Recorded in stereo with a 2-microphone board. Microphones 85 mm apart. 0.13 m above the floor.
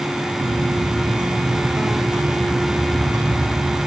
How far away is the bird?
About 5.5 m.